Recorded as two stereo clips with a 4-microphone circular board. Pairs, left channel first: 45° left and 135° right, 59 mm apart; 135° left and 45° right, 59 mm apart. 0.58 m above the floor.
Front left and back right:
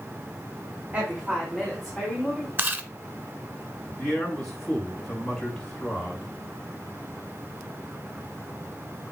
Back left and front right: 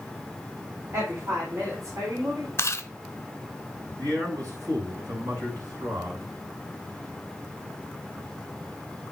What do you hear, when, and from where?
0.9 s a woman speaking: 75° right, 2.5 m; by 2.5 s 40° right, 3.5 m
2.6 s chewing: 170° left, 0.7 m
4.0 s a man speaking: 40° right, 6 m